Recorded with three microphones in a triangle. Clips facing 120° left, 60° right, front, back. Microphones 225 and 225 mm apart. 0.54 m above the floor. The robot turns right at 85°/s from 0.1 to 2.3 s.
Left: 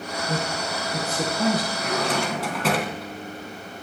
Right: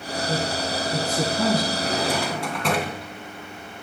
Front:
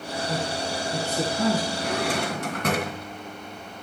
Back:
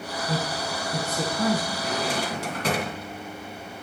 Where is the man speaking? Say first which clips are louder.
Right 2 dB, even; 160° right, 9 m; by 1.7 s 45° right, 9 m.